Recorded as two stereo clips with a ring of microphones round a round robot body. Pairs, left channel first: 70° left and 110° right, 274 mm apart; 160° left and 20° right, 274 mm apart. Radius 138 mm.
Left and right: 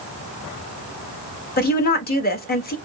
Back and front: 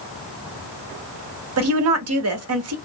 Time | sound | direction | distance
1.6 | a woman speaking | 10° left | 1.0 m